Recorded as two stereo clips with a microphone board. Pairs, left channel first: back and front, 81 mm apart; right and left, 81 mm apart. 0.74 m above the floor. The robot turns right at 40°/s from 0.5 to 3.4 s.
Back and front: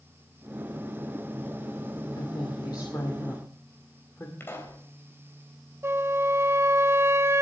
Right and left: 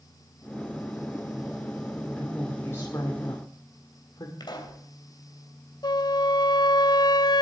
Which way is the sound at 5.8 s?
60° right.